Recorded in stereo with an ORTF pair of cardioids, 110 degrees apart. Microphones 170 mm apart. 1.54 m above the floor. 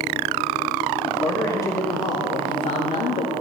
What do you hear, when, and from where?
1.1 s a man speaking: 10° left, 2.5 m; by 3.3 s 60° left, 2.5 m